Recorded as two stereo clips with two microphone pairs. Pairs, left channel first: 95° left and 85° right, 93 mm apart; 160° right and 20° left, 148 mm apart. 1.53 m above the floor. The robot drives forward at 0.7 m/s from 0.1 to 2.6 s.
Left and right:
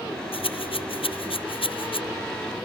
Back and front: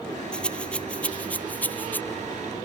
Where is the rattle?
115° left; by 2.0 s 120° left.